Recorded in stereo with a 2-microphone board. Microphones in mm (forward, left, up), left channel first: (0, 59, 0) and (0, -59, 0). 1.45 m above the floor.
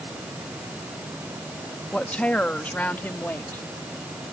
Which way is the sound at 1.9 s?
10° left (ahead or behind).